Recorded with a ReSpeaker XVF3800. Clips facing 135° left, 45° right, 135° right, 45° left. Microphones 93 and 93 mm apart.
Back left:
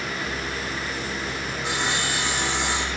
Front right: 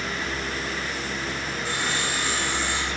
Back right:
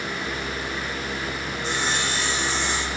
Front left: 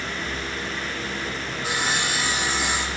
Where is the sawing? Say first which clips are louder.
Back left 2 dB, front left 1 dB; 125° left, 3 m.